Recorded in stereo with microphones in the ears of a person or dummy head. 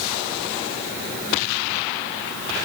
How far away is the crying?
No crying in this recording.